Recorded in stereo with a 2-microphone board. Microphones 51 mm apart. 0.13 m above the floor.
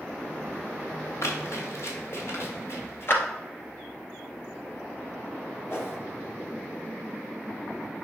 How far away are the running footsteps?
About 4 m.